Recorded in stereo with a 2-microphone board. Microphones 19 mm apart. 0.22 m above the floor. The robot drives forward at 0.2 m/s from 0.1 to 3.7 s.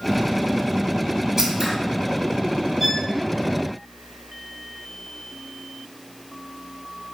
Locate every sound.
1.4 s scissors: 15° right (ahead or behind), 1.5 m
2.8 s a violin: centre (ahead or behind), 2.5 m